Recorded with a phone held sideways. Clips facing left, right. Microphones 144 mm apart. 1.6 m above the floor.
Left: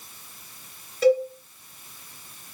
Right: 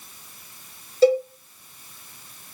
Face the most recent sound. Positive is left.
turn(degrees=-30)  # may be behind; listen again after turning